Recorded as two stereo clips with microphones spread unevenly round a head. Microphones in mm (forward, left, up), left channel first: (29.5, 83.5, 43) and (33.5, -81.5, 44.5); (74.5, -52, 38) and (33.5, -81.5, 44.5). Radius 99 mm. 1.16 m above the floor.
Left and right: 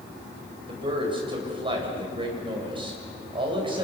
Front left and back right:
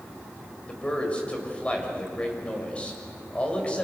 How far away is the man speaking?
About 7.5 m.